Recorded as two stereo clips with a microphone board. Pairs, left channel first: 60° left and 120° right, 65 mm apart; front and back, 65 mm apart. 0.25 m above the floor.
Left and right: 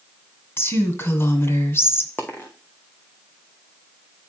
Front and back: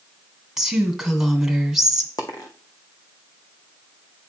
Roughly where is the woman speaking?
Left.